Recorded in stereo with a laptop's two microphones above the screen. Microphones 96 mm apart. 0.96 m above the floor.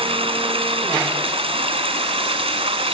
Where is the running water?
60° right (ahead or behind), 1.9 m.